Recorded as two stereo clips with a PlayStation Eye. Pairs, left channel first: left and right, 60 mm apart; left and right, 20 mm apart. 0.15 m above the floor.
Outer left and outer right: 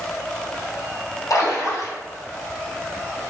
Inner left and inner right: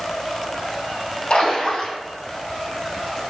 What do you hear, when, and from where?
1.3 s a splash: 60° left (ahead or behind), 1.6 m